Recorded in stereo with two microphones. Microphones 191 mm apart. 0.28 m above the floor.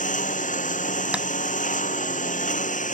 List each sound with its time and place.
0.0 s a lawn mower: 45° left (ahead or behind)
1.1 s tapping: 5° right (ahead or behind)